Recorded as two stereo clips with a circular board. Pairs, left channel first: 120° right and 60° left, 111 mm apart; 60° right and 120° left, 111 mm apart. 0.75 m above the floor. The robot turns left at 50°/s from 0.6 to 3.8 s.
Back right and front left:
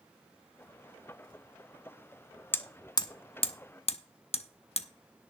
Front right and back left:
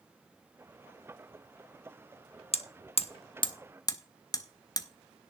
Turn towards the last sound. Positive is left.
turn(degrees=-110)